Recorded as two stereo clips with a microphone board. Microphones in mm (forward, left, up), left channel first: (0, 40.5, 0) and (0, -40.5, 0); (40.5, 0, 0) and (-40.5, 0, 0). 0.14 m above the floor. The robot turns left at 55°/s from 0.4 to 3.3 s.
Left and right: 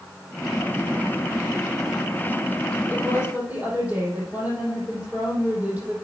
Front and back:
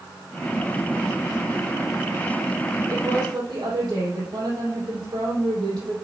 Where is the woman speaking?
130° right, 5 m; by 6.0 s 155° right, 5 m.